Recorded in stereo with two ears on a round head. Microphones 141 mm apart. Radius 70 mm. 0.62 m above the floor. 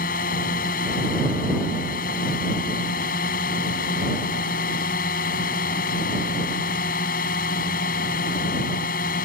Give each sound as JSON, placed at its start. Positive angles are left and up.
{"t": 0.0, "sound": "a drone", "side_deg": 60}